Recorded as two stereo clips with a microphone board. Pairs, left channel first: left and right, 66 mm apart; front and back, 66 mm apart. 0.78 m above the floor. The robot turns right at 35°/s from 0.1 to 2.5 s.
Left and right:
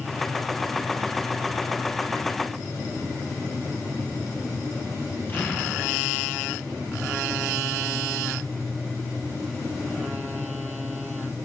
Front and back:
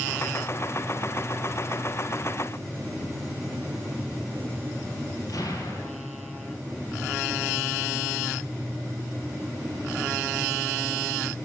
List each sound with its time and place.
5.3 s an explosion: 30° left, 8 m